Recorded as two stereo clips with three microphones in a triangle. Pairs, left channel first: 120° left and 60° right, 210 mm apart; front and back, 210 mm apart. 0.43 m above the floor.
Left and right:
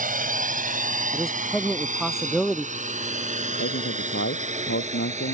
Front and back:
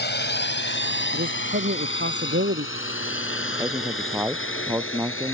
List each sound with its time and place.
0.0 s a drone: 20° right; by 5.3 s 5° right
1.1 s a man speaking: 150° right
3.6 s a man speaking: 100° left